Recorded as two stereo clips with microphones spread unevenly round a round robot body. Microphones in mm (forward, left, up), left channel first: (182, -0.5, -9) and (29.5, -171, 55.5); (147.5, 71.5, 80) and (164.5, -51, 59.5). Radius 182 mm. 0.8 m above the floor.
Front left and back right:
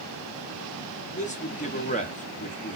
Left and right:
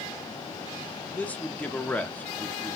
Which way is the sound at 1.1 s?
15° left.